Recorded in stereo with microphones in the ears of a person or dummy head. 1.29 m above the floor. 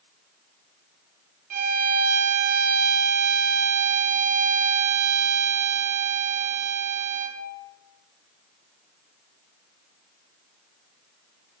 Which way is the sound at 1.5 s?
35° right (ahead or behind).